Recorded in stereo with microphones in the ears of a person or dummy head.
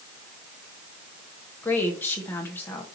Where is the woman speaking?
15° left (ahead or behind), 1.4 m.